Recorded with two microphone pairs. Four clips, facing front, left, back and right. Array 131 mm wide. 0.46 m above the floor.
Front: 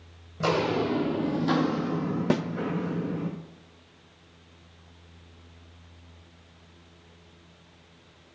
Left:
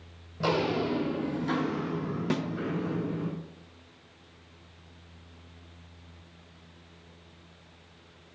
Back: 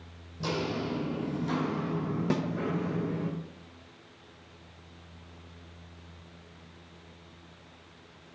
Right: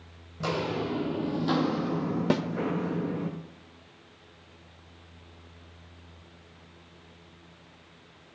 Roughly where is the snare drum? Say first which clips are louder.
Right 4 dB, front 4 dB; ahead right.